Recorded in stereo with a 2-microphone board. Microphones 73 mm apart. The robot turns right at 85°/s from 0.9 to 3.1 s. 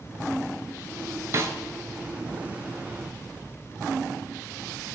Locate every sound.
1.3 s a snare drum: 40° right (ahead or behind), 0.5 m; by 1.6 s 45° right (ahead or behind), 0.5 m